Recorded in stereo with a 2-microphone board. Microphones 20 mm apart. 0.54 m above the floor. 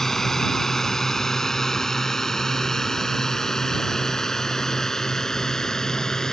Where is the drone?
20° left (ahead or behind); by 6.3 s 30° left (ahead or behind).